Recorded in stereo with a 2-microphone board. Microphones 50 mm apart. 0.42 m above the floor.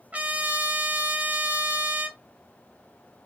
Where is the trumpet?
30° right (ahead or behind), 1.2 m.